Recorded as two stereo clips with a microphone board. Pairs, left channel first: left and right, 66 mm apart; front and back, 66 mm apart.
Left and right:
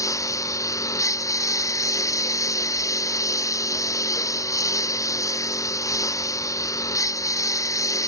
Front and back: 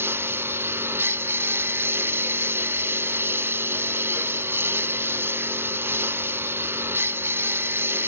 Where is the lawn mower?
125° left.